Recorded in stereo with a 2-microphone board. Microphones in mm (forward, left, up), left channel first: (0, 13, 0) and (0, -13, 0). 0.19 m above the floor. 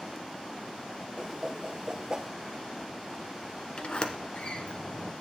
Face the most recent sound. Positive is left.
turn(degrees=45)  # may be behind; listen again after turning